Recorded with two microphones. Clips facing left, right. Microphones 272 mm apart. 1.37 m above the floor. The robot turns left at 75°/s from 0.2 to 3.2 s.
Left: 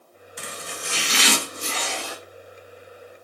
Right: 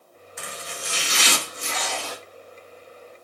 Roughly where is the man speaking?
I don't hear a man speaking.